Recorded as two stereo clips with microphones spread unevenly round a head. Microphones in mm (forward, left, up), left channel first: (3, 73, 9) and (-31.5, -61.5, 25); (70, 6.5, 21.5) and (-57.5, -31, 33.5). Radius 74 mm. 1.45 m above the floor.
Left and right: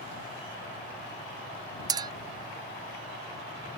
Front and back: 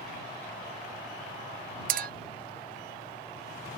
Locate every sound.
1.9 s a clink: 160° right